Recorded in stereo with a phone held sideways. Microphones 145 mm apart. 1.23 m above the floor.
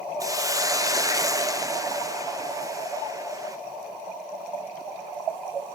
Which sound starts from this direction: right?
A hiss, at 0.2 s.